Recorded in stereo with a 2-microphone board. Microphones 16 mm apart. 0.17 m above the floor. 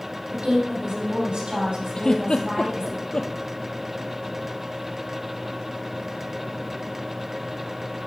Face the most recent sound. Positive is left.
turn(degrees=55)  # may be behind; listen again after turning